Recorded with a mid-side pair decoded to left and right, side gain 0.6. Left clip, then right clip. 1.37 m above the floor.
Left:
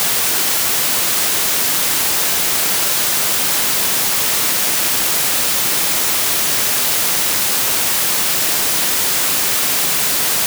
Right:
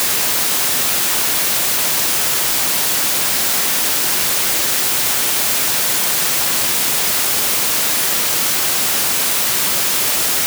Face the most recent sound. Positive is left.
No sound to turn to.